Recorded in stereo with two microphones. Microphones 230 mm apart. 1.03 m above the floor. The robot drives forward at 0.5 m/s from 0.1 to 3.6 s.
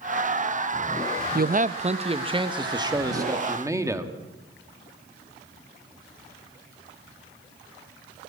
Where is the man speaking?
45° right (ahead or behind), 0.5 m; by 4.1 s 15° right (ahead or behind), 1.6 m.